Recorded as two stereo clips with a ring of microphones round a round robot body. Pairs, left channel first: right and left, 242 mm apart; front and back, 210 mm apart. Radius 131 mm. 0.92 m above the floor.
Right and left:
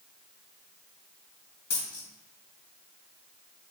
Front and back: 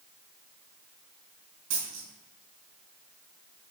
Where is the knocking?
No knocking in this recording.